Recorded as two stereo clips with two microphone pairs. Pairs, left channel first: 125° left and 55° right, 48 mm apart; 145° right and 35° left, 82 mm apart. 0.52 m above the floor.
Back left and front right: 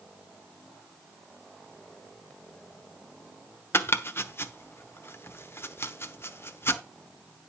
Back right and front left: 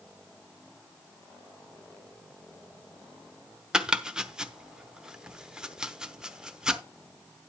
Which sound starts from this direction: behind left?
Chopping, at 3.7 s.